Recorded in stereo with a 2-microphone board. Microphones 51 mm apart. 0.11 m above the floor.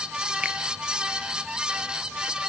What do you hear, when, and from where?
0.4 s a finger snap: 20° right (ahead or behind), 1.5 m